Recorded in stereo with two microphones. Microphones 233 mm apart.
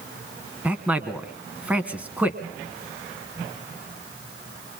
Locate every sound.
0.6 s a man speaking: 5° right (ahead or behind), 1.4 m